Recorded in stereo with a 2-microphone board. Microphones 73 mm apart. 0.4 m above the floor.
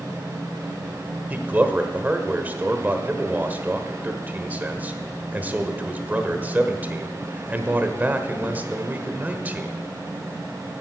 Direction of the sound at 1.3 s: 20° right (ahead or behind).